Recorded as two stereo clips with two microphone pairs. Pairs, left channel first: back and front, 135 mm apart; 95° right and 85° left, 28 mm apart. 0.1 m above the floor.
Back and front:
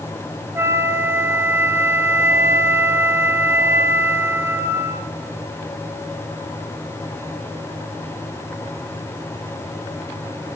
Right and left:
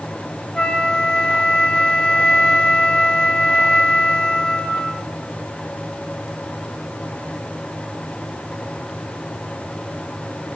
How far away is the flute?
About 0.8 m.